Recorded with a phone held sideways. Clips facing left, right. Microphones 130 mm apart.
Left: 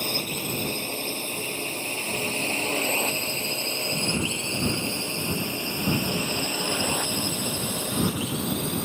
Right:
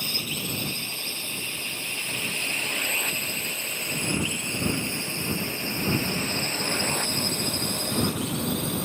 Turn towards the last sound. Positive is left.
turn(degrees=0)  # may be behind; listen again after turning